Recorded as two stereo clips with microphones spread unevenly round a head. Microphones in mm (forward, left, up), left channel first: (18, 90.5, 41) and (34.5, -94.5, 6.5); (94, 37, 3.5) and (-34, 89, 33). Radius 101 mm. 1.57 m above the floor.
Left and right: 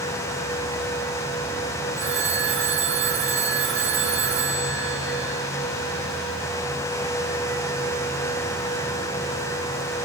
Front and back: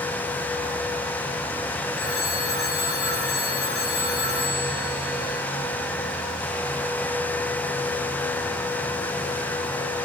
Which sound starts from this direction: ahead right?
A phone ringing, at 2.0 s.